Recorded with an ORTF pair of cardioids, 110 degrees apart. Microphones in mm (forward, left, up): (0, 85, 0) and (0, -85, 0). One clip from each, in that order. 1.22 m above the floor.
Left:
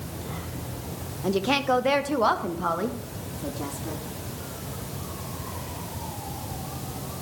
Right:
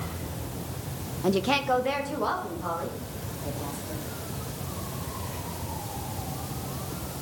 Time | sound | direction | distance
1.2 | a woman speaking | 10° right | 0.9 m